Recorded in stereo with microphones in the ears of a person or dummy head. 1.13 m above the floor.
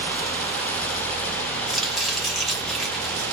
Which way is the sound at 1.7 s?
Centre (ahead or behind).